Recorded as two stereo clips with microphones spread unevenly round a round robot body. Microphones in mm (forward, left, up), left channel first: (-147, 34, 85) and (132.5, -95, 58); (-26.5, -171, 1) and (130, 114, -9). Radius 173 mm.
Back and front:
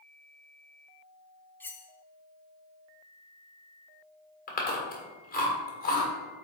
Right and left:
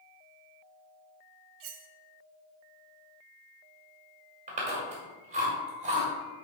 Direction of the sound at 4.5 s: 110° left.